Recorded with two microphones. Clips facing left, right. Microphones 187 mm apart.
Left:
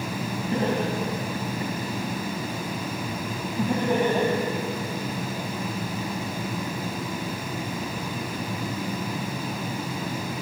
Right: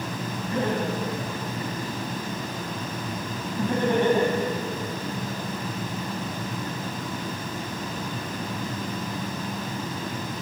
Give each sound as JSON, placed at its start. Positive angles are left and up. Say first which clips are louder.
{"t": 0.5, "sound": "laughter", "louder": "left 1 dB", "side_deg": 35, "distance_m": 5.0}